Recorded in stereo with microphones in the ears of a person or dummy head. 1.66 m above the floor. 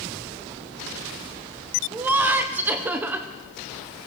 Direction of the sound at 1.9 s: 10° right (ahead or behind).